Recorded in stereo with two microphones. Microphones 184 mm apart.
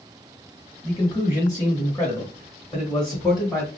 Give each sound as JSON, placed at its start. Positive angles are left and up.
{"t": 0.8, "sound": "a man speaking", "side_deg": 30, "distance_m": 1.0}